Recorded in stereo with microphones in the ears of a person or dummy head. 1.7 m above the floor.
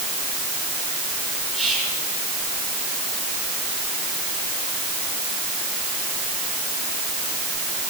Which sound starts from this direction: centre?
Whispering, at 1.5 s.